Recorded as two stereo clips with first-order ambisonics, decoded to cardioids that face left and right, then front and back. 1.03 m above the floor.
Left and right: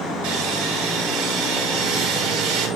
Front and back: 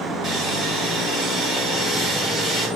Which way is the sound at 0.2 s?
115° right.